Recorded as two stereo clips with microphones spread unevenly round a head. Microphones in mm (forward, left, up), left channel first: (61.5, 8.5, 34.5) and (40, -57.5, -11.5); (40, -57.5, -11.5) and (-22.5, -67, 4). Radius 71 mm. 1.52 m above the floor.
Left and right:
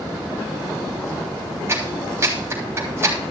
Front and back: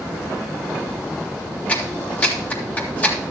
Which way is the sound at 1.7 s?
55° right.